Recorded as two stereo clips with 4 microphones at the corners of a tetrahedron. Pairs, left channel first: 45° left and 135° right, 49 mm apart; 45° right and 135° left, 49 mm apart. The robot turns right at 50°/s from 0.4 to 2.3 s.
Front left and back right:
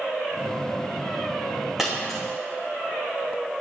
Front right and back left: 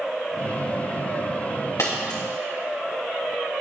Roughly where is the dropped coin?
Ahead right.